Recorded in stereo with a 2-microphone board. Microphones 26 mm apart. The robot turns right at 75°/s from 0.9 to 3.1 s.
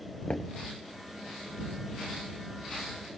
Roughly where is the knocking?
Left.